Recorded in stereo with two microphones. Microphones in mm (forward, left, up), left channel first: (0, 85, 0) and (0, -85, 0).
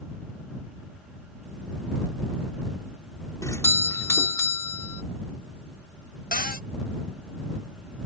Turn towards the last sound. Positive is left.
turn(degrees=60)  # may be behind; listen again after turning